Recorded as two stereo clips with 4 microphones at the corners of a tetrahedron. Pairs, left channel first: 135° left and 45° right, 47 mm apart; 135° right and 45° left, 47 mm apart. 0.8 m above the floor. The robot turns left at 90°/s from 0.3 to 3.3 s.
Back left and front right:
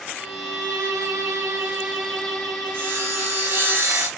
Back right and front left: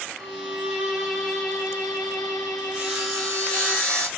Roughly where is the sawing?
Ahead.